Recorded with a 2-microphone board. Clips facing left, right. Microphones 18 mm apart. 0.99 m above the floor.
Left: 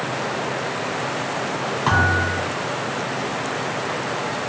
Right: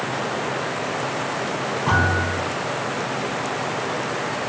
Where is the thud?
65° left (ahead or behind), 2 m.